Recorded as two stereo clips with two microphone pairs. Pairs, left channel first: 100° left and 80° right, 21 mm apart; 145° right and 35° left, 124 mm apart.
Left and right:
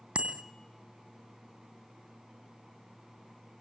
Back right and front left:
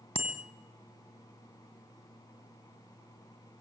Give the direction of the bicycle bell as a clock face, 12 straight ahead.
4 o'clock.